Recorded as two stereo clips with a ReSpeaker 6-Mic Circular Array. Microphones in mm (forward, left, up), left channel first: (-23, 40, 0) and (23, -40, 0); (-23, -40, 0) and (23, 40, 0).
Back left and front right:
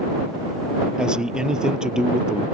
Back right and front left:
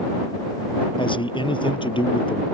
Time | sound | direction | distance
1.0 | a man speaking | 140° right | ?